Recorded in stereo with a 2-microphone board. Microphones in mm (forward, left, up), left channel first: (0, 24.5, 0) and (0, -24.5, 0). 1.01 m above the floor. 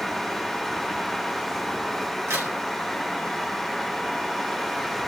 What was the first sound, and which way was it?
A crack, 80° right.